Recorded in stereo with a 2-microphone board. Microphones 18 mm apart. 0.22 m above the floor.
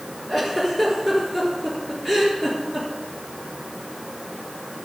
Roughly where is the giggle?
Centre.